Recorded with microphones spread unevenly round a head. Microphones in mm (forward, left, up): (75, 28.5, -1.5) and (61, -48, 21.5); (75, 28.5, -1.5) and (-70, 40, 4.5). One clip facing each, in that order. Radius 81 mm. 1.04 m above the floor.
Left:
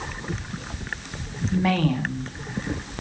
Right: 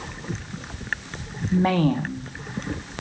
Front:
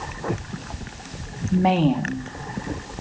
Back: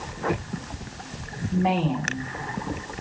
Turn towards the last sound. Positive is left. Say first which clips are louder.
# right 2 dB, front 5 dB
turn(degrees=-40)